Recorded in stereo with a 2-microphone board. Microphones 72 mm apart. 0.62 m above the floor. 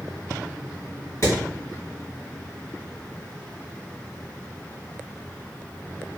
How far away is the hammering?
About 1.8 m.